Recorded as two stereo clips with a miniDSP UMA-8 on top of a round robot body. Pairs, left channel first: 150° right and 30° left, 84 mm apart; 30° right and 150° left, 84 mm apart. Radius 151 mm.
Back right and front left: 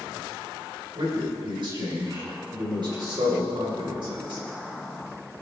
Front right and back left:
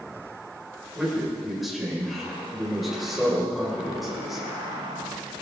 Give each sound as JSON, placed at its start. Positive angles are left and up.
{"t": 0.9, "sound": "a man speaking", "azimuth_deg": 60, "distance_m": 5.0}